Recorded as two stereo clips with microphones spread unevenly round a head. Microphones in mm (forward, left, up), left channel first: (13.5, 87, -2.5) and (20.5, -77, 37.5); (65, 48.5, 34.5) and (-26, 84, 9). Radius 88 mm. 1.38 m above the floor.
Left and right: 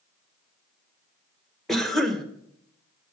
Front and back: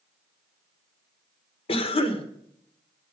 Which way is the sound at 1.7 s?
5° left.